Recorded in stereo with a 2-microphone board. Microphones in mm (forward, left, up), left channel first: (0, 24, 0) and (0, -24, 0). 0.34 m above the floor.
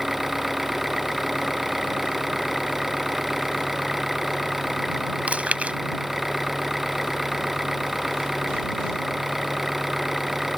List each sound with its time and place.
0.0 s an engine running: 5° right (ahead or behind)
5.3 s chewing: 30° right (ahead or behind)